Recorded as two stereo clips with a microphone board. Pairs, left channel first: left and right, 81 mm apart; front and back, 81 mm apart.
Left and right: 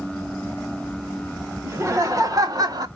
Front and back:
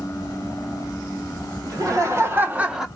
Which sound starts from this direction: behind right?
Laughter, at 1.6 s.